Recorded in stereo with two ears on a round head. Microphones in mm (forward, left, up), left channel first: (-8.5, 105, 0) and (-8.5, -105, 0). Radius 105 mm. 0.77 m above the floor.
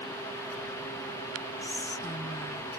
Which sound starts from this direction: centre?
Whispering, at 1.6 s.